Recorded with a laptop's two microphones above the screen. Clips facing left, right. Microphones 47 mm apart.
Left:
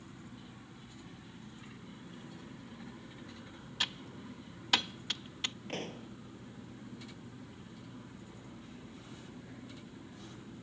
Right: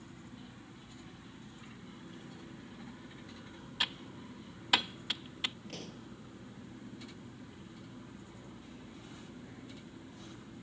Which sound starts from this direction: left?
A pop, at 5.7 s.